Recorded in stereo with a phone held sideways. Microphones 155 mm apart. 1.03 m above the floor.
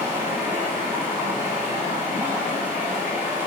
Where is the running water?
15° right (ahead or behind), 4 m.